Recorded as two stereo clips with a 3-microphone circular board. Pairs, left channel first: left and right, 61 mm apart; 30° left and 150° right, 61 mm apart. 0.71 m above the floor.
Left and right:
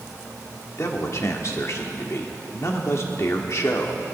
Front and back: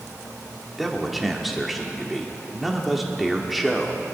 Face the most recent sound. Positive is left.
turn(degrees=125)